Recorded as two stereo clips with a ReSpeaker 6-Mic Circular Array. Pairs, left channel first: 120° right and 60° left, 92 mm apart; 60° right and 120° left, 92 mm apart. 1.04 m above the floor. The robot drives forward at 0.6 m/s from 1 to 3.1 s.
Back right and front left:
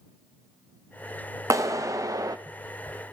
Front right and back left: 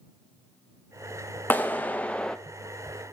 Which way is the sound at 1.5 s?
10° left.